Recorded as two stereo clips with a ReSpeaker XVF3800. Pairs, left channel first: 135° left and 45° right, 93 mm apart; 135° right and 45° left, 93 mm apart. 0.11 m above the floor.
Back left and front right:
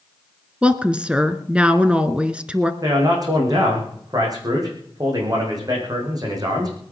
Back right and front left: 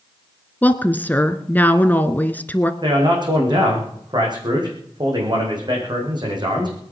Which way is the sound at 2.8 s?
5° left.